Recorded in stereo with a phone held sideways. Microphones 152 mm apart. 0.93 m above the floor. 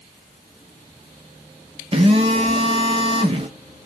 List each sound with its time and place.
1.9 s a phone buzzing: 35° right (ahead or behind), 0.7 m